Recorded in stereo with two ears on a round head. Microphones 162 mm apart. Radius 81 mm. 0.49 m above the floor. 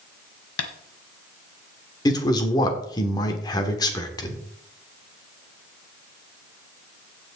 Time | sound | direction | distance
0.6 | tapping | 85° left | 1.5 m
2.0 | a man speaking | 20° left (ahead or behind) | 1.5 m